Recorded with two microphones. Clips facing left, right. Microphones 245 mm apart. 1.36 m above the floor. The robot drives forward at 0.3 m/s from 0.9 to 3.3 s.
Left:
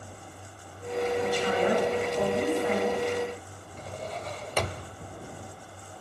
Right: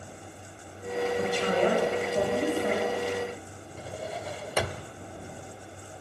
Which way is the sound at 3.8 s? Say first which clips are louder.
Right 1 dB; 10° right (ahead or behind).